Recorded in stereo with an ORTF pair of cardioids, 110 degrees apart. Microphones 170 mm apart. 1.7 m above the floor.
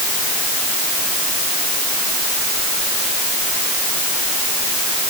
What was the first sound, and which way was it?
Only background noise.